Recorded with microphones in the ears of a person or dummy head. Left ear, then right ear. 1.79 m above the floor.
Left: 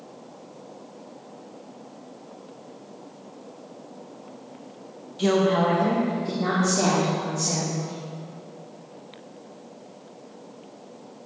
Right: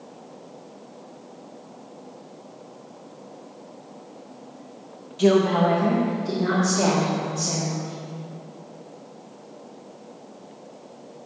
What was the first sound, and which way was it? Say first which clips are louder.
A woman speaking: right 2 dB; 10° right (ahead or behind).